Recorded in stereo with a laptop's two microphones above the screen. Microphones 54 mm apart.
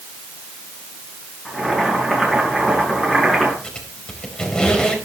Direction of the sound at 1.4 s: Centre (ahead or behind).